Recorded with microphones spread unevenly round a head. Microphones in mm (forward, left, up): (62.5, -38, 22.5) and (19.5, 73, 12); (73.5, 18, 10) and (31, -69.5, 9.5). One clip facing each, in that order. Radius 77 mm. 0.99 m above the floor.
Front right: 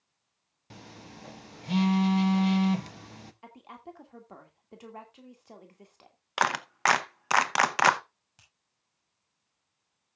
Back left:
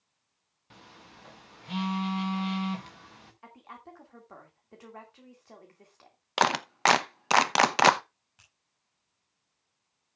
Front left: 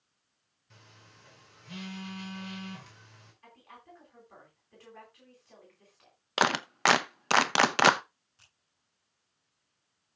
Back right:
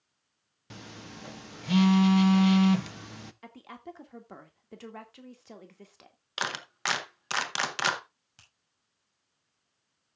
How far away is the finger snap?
About 6 m.